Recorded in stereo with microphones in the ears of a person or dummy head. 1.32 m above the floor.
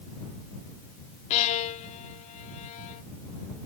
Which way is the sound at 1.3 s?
40° left (ahead or behind).